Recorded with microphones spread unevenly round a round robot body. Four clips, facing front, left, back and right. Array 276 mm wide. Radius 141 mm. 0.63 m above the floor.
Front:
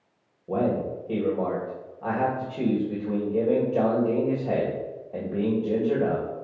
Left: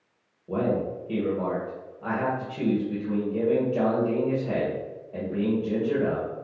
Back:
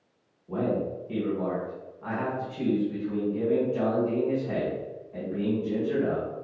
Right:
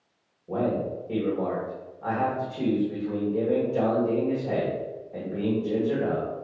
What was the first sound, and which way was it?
A man speaking, straight ahead.